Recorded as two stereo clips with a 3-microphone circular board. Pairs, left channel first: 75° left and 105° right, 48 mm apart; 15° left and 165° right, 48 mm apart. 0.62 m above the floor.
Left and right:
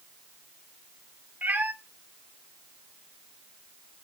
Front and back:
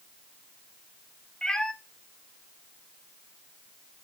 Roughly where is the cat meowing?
Ahead right.